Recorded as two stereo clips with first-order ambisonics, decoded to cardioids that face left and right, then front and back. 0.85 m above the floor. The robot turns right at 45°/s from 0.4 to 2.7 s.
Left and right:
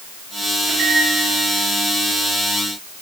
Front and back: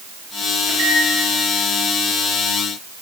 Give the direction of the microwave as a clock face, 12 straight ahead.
4 o'clock.